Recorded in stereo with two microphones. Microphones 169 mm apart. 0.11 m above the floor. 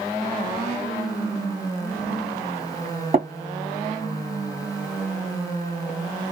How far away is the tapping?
About 2.5 m.